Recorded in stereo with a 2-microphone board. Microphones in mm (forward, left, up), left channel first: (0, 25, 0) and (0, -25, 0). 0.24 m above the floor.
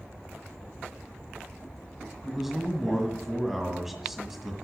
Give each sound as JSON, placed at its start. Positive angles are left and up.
{"t": 2.2, "sound": "a man speaking", "side_deg": -5, "distance_m": 1.5}